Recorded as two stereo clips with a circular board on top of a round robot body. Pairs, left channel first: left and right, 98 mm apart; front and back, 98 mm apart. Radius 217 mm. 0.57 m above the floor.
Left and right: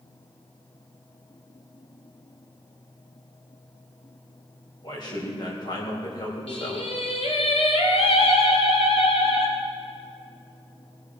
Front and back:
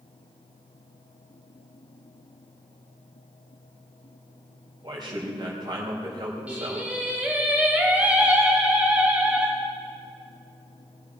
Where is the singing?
105° left, 2 m.